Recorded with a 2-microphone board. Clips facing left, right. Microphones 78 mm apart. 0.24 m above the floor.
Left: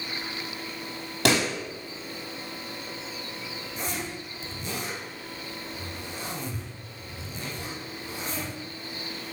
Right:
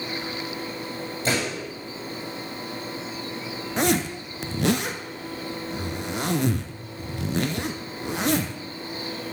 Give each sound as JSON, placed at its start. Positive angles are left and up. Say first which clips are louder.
{"t": 1.2, "sound": "a pop", "louder": "left 3 dB", "side_deg": 85, "distance_m": 5.0}
{"t": 3.8, "sound": "a zipper", "louder": "right 12 dB", "side_deg": -85, "distance_m": 0.8}